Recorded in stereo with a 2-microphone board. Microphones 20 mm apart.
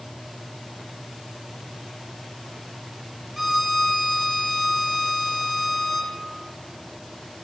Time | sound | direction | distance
3.4 | a violin | 15° right (ahead or behind) | 0.9 m